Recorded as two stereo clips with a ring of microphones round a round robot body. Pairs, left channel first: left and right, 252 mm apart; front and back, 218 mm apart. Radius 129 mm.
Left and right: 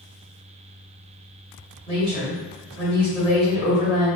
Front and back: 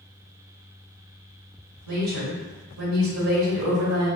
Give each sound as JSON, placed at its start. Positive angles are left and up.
{"t": 1.9, "sound": "a woman speaking", "azimuth_deg": -160, "distance_m": 1.7}